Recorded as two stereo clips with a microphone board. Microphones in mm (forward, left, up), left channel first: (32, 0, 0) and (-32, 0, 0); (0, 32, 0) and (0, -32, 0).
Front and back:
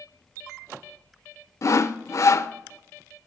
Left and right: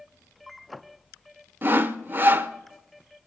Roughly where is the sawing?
Ahead right.